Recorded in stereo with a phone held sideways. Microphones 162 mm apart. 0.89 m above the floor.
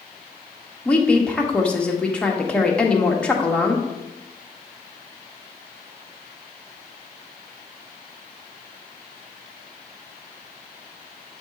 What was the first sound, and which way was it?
A woman speaking, 5° left (ahead or behind).